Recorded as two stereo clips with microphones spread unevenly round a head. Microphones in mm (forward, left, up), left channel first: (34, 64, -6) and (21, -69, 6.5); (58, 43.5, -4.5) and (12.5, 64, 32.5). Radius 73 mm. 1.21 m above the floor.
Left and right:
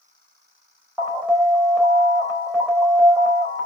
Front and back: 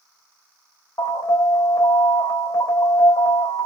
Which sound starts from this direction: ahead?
An alarm, at 1.0 s.